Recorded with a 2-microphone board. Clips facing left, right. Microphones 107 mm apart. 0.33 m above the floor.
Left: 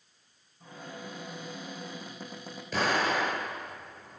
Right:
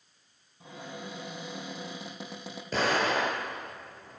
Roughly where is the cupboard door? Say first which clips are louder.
Right 1 dB; right.